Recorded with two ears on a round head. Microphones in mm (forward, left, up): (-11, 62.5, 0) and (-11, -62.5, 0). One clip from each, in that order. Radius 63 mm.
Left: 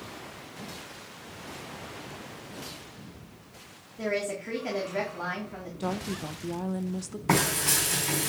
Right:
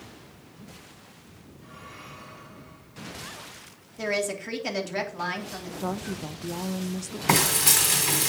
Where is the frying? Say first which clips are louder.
Right 4 dB; 80° right, 4 m.